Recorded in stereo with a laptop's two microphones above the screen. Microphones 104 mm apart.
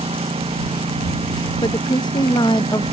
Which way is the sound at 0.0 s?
90° right.